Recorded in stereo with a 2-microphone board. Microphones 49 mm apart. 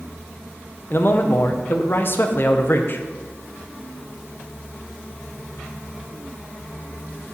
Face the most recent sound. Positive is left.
turn(degrees=50)  # may be behind; listen again after turning